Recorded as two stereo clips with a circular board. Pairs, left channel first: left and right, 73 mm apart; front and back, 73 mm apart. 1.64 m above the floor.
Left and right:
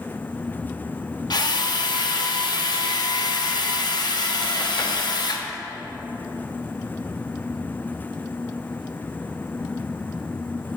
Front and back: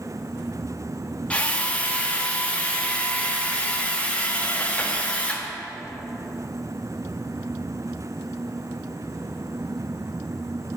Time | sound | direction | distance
1.3 | a drill | 70° left | 0.7 m